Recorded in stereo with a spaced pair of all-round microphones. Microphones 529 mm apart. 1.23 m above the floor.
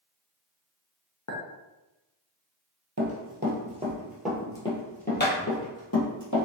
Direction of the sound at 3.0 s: 30° right (ahead or behind).